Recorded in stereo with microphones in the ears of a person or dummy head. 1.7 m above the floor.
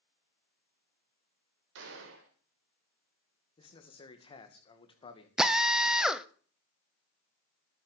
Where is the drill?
10° right (ahead or behind), 0.8 m.